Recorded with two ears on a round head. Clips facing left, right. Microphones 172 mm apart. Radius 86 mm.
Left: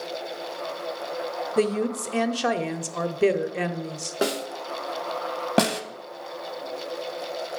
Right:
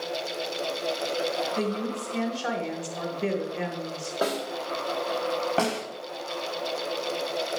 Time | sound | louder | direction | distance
1.6 | a woman speaking | left 5 dB | 75° left (ahead or behind) | 0.7 m
4.2 | a snare drum | left 2 dB | 30° left (ahead or behind) | 0.9 m
5.6 | a snare drum | left 7 dB | 50° left (ahead or behind) | 0.9 m